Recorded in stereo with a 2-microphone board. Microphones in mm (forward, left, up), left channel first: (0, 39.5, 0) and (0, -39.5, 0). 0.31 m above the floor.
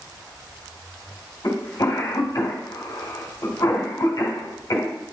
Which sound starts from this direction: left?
A cough, at 1.4 s.